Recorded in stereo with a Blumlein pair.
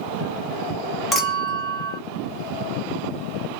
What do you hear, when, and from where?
1.1 s a clink: 5° left, 1.1 m